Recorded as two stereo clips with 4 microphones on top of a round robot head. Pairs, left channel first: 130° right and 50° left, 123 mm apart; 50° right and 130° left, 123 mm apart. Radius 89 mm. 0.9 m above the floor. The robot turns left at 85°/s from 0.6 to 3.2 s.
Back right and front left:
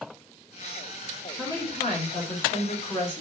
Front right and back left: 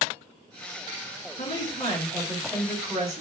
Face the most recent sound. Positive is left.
turn(degrees=150)